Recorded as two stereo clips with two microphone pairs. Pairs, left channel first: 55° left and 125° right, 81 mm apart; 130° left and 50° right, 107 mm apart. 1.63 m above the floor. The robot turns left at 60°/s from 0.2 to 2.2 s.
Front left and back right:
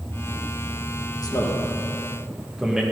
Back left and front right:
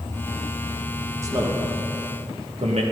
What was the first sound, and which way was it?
A man speaking, 15° left.